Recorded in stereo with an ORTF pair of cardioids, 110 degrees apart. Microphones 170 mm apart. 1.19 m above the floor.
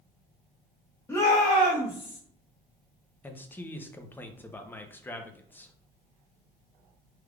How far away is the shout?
About 0.9 m.